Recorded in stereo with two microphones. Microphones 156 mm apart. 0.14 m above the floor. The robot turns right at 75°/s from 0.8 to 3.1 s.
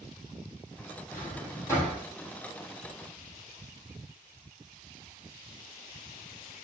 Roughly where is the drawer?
Left.